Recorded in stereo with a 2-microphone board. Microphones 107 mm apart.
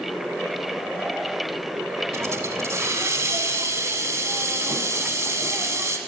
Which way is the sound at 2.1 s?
25° right (ahead or behind).